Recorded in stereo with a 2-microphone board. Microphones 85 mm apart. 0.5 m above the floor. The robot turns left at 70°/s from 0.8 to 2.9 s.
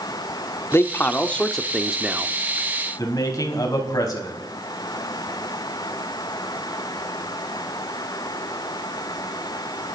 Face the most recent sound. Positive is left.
turn(degrees=45)  # may be behind; listen again after turning